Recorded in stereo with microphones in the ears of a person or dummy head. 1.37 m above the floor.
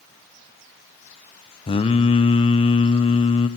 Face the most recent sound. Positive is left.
turn(degrees=25)  # may be behind; listen again after turning